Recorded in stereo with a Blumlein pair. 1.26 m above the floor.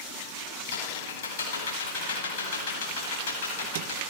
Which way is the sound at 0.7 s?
55° left.